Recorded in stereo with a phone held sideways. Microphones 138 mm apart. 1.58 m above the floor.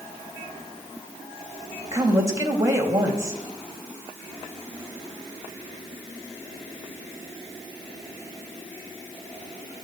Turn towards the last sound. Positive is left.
turn(degrees=-25)  # may be behind; listen again after turning